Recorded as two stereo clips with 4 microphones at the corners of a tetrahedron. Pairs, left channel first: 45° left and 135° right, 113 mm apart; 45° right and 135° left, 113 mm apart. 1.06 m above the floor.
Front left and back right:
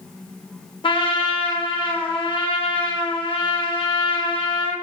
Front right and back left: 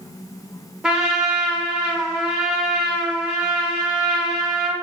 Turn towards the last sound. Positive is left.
turn(degrees=55)